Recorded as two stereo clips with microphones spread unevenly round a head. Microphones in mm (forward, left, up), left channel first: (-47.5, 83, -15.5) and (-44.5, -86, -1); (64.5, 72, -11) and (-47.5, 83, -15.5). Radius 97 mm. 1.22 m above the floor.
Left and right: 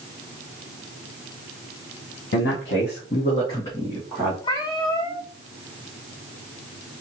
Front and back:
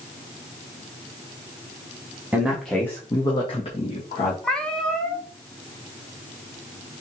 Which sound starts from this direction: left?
A man speaking, at 2.3 s.